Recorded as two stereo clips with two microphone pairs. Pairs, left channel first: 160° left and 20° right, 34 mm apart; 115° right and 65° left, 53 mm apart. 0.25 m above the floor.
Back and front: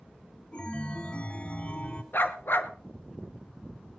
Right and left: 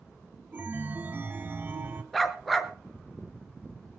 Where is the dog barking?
155° left, 1.3 m.